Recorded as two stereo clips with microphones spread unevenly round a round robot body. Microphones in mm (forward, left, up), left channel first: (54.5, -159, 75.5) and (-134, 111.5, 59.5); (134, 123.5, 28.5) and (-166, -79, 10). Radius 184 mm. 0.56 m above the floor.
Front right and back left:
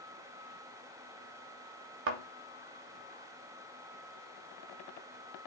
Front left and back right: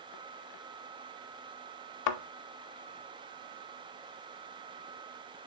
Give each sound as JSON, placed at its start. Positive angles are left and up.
{"t": 2.1, "sound": "a thud", "azimuth_deg": 70, "distance_m": 0.5}